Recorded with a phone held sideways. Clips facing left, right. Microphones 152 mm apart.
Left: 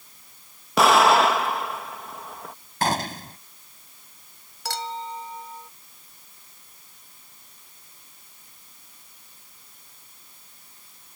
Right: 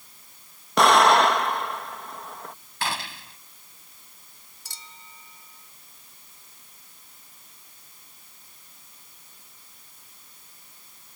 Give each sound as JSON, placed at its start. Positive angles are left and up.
{"t": 0.8, "sound": "an explosion", "side_deg": 5}
{"t": 2.8, "sound": "a gunshot", "side_deg": 45}
{"t": 4.7, "sound": "a clink", "side_deg": 85}